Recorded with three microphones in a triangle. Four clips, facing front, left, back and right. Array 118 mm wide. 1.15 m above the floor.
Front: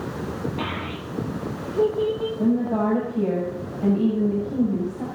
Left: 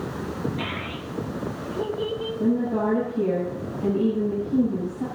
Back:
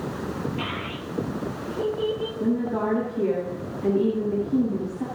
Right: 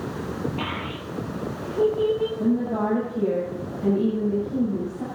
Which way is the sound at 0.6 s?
40° right.